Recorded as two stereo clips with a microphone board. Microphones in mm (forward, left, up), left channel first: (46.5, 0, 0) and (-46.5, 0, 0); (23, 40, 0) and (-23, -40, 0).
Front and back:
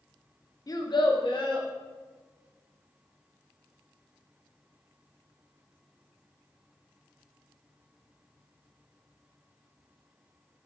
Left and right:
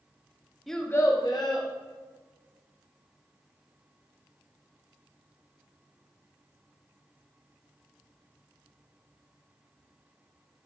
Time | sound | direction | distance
0.7 | a child speaking | 30° right | 0.5 m